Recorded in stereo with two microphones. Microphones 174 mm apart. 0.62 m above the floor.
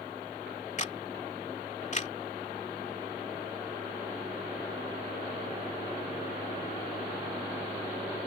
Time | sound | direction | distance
0.8 | a camera shutter | 45° left (ahead or behind) | ?